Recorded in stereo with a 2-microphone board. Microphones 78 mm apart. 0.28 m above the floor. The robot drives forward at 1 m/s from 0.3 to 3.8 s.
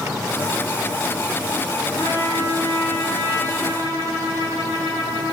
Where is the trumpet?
25° left (ahead or behind), 10 m; by 5.3 s 30° left (ahead or behind), 8.5 m.